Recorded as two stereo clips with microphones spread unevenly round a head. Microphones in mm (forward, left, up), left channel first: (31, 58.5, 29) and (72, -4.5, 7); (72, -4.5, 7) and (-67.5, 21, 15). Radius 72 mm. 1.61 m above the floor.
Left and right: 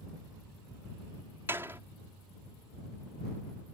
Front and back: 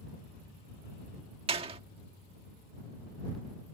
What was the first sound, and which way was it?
A door slam, 140° right.